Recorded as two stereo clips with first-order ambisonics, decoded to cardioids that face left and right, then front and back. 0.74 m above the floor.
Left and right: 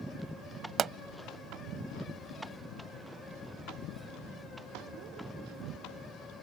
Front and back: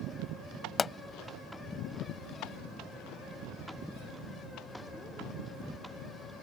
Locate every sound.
0.8 s a pop: 60° right